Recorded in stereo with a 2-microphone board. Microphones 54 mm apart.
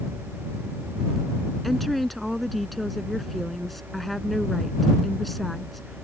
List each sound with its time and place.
1.6 s a woman speaking: centre (ahead or behind)